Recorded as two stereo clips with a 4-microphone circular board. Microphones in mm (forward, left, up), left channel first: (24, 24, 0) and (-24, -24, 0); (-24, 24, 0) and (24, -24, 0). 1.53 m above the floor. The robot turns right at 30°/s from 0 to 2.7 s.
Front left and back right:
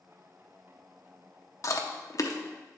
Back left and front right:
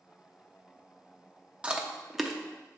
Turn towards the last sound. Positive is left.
turn(degrees=55)